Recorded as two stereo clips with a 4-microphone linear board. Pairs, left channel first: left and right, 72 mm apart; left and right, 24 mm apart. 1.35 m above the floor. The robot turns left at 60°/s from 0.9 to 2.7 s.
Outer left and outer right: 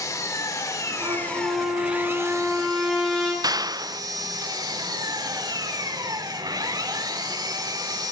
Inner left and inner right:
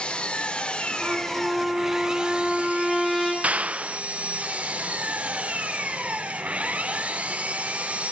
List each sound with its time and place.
0.0 s an engine running: 45° left, 4 m; by 8.1 s 65° right, 4 m
1.0 s a trumpet: 80° right, 8.5 m; by 3.3 s 175° left, 8.5 m
3.4 s a clap: 60° right (ahead or behind), 0.6 m